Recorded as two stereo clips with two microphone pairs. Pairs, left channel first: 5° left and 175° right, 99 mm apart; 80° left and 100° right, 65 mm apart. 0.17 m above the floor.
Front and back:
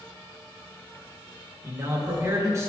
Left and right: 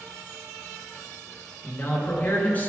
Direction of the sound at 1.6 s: 135° left.